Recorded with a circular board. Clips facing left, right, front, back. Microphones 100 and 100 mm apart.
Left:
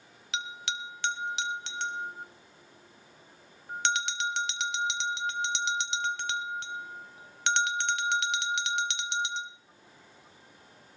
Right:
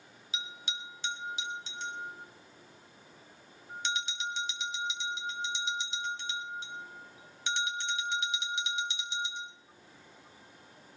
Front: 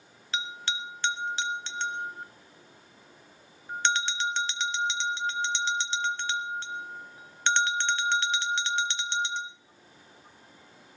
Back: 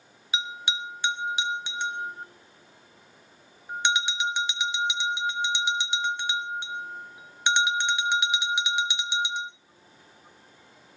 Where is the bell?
105° left, 1.1 m.